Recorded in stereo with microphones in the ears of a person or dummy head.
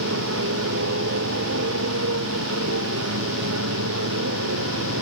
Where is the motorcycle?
75° right (ahead or behind); by 5.0 s 80° right.